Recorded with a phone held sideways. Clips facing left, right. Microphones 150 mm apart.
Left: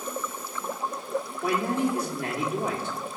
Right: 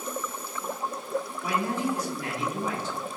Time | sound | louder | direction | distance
1.4 | a man speaking | left 4 dB | 55° left (ahead or behind) | 2 m